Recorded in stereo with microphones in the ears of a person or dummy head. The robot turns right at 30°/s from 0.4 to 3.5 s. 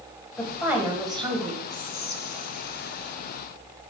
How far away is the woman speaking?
About 1.3 m.